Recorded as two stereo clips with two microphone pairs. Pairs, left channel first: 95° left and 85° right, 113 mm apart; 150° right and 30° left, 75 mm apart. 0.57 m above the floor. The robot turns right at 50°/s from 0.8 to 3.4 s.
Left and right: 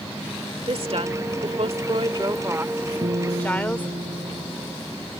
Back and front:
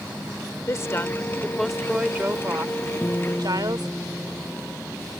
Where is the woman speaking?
110° right; by 4.0 s 20° left.